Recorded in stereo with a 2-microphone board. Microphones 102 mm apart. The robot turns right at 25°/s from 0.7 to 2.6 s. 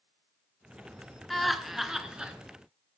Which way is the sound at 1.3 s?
Centre (ahead or behind).